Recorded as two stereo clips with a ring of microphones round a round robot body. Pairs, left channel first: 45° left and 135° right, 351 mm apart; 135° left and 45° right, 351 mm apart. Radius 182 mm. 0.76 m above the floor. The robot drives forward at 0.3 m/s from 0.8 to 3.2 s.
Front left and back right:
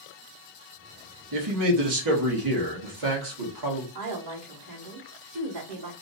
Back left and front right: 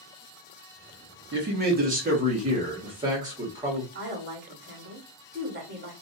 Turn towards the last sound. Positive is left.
turn(degrees=-105)